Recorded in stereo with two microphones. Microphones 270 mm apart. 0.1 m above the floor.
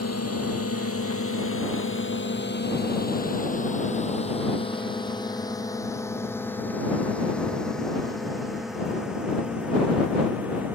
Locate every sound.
0.0 s a drone: 65° left (ahead or behind); by 10.8 s 5° right (ahead or behind)